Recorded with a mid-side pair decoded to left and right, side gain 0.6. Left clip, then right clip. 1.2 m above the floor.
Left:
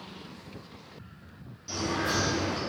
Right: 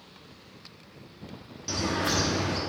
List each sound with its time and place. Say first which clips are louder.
1.7 s a bird: right 2 dB; 45° right, 1.5 m